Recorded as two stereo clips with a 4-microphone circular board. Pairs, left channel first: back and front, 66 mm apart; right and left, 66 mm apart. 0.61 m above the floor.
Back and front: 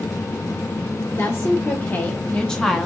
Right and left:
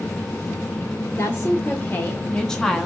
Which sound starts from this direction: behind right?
A woman speaking, at 1.2 s.